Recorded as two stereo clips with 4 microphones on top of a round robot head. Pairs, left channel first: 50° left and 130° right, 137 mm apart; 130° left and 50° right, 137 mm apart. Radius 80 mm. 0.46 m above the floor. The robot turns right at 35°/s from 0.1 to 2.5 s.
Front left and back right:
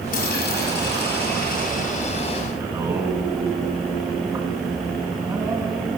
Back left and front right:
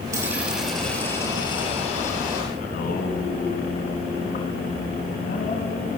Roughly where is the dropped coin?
Ahead.